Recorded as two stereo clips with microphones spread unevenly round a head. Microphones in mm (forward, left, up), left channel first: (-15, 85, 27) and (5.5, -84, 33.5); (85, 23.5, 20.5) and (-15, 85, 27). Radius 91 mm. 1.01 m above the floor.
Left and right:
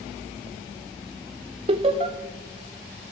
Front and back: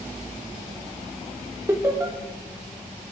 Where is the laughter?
140° right, 0.7 m.